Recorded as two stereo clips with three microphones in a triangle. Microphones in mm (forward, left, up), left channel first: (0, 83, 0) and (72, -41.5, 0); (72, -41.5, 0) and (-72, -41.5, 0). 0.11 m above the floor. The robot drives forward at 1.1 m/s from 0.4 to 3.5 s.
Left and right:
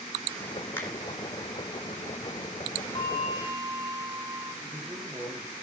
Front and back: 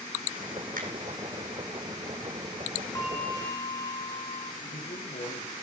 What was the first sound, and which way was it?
A finger snap, 165° right.